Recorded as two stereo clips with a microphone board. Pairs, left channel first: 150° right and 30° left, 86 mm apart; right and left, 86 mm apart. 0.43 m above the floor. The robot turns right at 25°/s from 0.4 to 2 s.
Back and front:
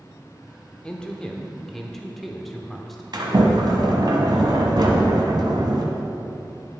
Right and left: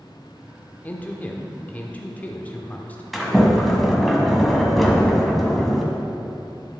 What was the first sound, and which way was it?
A man speaking, 95° right.